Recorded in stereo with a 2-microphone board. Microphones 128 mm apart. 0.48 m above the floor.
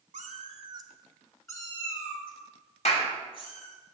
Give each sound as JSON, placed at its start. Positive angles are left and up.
{"t": 0.1, "sound": "a cat meowing", "side_deg": -85, "distance_m": 1.2}
{"t": 2.9, "sound": "a clap", "side_deg": 60, "distance_m": 1.6}